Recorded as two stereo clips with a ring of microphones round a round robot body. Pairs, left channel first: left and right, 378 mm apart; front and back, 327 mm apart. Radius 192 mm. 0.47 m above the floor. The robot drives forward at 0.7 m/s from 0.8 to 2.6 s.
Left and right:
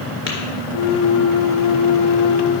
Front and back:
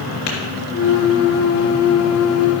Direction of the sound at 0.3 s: 30° left.